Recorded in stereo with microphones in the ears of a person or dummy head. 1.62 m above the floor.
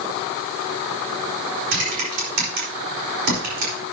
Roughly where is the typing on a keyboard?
Right.